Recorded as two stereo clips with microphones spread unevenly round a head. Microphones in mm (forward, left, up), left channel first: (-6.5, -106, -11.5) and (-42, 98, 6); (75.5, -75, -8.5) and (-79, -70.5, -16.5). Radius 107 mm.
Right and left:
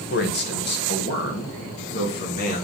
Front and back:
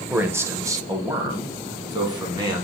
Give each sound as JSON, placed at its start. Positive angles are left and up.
{"t": 0.1, "sound": "a man speaking", "azimuth_deg": -105, "distance_m": 0.9}